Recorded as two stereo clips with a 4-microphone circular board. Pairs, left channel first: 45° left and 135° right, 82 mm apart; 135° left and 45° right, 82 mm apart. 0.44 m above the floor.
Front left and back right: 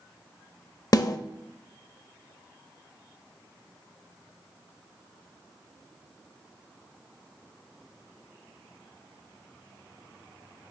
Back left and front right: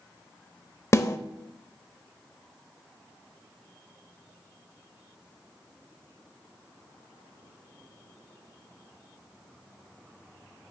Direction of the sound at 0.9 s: 85° left.